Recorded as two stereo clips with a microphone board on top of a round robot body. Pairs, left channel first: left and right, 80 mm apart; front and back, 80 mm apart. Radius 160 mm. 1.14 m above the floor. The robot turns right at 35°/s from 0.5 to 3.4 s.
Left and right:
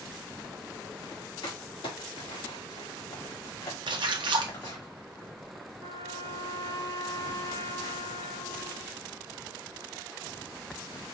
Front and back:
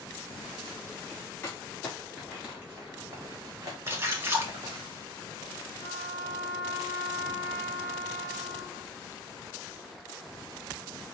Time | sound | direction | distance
1.4 | crumpling | 65° left | 1.7 m
3.9 | a splash | 115° right | 0.6 m
5.8 | a trumpet | 105° left | 2.0 m